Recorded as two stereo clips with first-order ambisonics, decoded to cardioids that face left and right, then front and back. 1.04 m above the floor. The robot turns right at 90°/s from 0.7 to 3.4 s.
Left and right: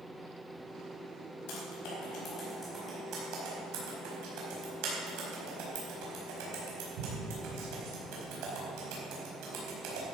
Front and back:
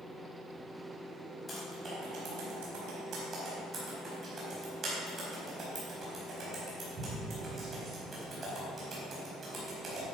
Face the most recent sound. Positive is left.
turn(degrees=-110)